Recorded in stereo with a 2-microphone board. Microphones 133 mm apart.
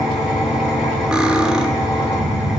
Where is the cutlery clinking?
5° right (ahead or behind), 0.7 m.